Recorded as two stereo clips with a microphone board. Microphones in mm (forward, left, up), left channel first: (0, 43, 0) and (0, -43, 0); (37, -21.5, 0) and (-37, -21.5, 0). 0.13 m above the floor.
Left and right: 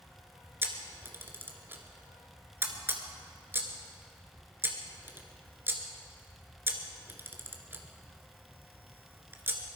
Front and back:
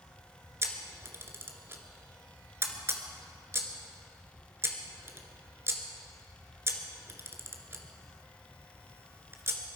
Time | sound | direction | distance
0.6 | a camera shutter | 140° right | 1.6 m